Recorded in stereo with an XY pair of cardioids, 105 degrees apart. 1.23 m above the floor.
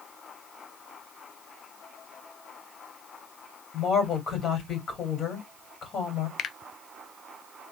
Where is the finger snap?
55° left, 0.6 m.